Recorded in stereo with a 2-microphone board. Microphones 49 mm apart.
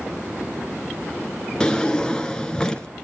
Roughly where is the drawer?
Centre.